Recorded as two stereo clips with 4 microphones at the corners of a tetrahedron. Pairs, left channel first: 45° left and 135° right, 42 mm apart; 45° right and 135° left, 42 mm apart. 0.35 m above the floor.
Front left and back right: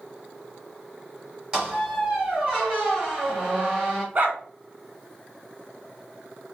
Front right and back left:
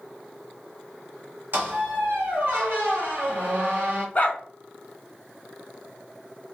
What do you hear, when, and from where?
1.5 s a squeak: 160° left, 1.7 m
4.2 s a dog barking: 95° right, 0.8 m